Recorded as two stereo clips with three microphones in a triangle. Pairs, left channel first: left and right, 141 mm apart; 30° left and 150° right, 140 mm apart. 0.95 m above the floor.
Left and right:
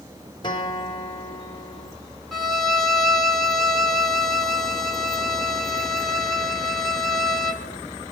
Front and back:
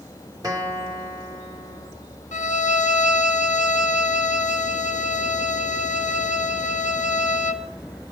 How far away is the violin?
About 1.1 m.